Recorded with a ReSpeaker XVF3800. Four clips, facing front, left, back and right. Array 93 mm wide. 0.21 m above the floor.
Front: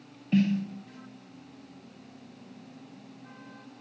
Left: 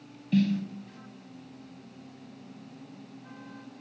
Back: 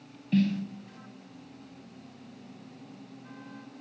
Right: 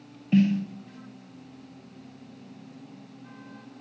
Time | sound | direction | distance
0.3 | a snare drum | 55° right | 1.4 m